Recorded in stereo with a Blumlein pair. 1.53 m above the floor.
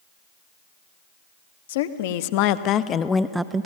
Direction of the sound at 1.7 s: 60° left.